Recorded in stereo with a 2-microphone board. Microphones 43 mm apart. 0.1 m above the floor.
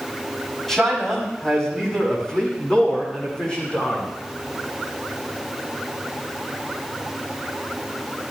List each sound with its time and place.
0.7 s a man speaking: 10° left (ahead or behind), 6.5 m; by 4.0 s 25° left (ahead or behind), 8 m